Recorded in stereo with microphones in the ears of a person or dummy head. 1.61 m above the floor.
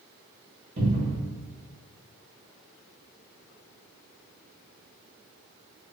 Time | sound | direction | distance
0.8 | a cupboard door | 45° right (ahead or behind) | 1.1 m